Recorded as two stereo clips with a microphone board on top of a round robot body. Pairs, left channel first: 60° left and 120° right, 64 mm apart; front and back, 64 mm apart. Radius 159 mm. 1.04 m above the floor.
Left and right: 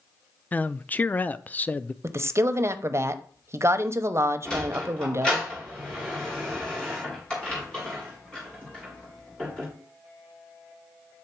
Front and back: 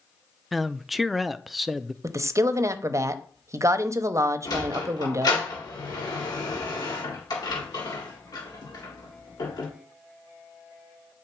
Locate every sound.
0.5 s a man speaking: 95° left, 0.5 m
2.0 s a woman speaking: 155° right, 0.8 m
4.5 s a sliding door: 15° right, 1.9 m